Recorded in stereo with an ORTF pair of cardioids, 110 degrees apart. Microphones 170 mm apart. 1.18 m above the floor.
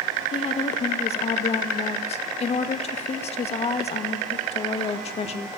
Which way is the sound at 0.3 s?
40° left.